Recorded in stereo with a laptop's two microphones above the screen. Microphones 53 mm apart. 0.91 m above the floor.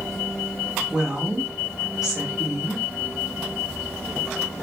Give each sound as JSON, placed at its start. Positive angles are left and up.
{"t": 0.9, "sound": "a woman speaking", "side_deg": -10, "distance_m": 1.0}